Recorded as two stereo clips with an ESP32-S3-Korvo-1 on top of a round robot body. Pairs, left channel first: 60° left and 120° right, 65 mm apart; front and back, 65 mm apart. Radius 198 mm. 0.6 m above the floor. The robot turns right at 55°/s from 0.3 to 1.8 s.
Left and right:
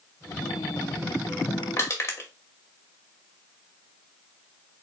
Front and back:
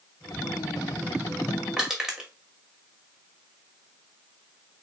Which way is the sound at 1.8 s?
100° left.